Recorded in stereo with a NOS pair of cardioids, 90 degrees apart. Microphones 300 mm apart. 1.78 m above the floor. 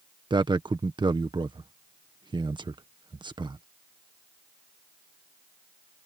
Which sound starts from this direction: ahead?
A man speaking, at 0.3 s.